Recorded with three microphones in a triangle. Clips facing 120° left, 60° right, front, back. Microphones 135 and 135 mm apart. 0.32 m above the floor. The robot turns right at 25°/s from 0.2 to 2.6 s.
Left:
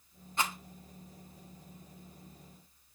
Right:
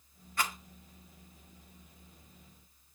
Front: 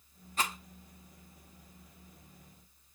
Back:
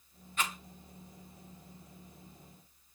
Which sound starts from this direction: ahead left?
A rattle, at 0.4 s.